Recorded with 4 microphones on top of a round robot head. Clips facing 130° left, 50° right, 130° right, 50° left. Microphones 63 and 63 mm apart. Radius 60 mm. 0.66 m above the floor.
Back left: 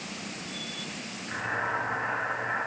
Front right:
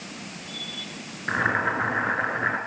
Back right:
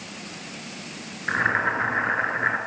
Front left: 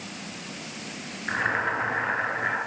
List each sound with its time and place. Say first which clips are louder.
1.3 s boiling: front right 7 dB, back right 3 dB; 70° right, 6.5 m